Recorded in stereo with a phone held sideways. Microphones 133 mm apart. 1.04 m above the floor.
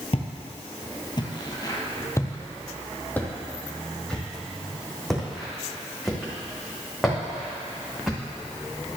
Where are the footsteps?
50° left (ahead or behind), 1.6 m; by 8.2 s 5° right (ahead or behind), 6 m.